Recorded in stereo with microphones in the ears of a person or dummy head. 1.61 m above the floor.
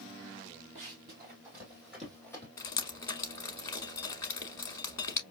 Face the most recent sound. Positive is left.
turn(degrees=20)  # may be behind; listen again after turning